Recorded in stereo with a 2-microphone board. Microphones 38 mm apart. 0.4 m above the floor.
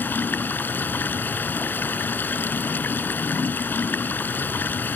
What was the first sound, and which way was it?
Running water, 65° left (ahead or behind).